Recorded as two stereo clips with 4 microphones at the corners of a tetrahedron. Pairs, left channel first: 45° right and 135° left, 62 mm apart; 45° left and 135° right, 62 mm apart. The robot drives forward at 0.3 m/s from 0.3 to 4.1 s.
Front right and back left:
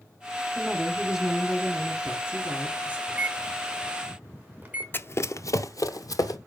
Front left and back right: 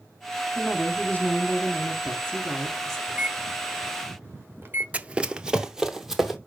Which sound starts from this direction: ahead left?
A woman speaking, at 0.6 s.